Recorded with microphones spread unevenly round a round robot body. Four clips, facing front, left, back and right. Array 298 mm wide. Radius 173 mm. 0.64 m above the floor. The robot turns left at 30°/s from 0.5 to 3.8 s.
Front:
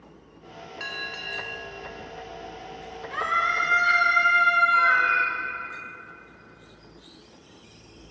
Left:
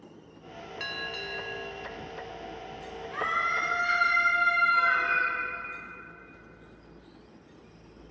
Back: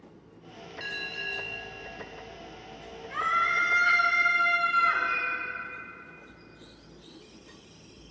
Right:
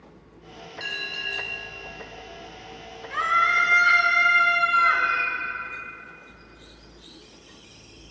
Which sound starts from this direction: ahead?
A cat meowing, at 4.7 s.